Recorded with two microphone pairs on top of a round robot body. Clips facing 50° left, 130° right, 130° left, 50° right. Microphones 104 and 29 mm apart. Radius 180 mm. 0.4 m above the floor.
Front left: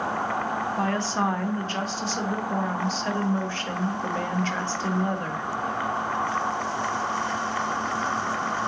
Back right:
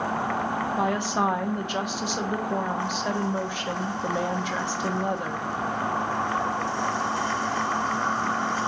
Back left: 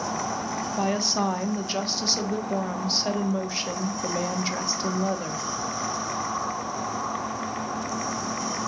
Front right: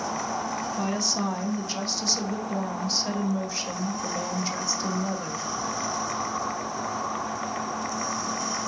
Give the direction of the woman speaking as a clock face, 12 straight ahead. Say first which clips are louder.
Back right 2 dB, back left 5 dB; 6 o'clock.